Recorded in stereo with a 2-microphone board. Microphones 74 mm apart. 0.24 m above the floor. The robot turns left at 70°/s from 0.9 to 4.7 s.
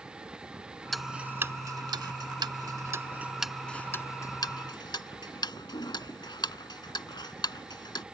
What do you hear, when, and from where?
0.9 s ticking: centre (ahead or behind); by 8.0 s 75° left (ahead or behind)